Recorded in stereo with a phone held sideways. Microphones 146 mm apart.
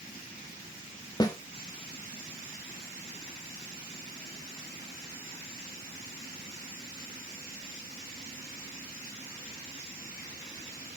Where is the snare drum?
25° left (ahead or behind), 1.3 m.